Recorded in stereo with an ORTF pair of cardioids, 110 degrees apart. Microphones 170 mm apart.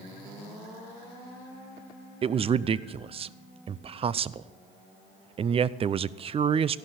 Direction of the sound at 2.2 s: 35° right.